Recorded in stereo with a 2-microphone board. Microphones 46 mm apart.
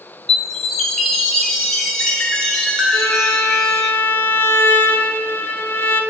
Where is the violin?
55° left (ahead or behind), 0.8 m.